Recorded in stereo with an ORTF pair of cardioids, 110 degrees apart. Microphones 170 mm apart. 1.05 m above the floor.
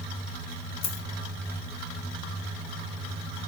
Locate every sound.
0.8 s a dropped coin: 65° left, 2.5 m